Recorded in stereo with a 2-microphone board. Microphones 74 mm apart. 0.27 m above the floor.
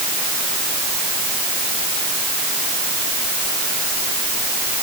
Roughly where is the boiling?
I don't hear boiling.